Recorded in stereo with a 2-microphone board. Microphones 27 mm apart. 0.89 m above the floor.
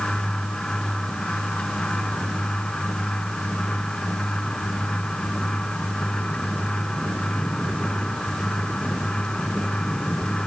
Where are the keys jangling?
No keys jangling in this recording.